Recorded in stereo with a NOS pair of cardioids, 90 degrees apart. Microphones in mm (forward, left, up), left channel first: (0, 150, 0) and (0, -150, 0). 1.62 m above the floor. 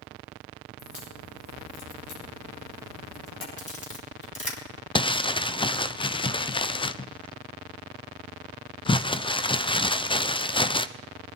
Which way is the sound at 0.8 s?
70° left.